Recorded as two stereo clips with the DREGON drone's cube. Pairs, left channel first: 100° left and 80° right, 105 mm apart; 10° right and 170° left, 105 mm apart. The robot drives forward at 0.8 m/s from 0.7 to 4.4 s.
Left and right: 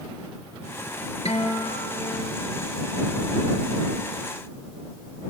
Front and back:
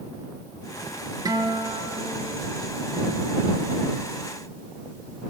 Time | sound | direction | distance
1.2 | a guitar | 115° left | 2.5 m